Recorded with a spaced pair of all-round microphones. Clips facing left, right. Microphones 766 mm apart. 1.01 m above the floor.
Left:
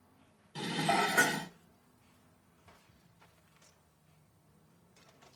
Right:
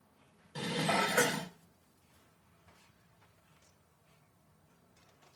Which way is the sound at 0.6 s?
15° right (ahead or behind).